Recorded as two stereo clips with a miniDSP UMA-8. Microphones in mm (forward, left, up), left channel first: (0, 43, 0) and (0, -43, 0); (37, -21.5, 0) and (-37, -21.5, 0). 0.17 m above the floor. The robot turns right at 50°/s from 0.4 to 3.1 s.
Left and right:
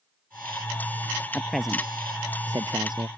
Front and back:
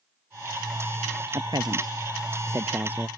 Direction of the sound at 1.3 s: 165° left.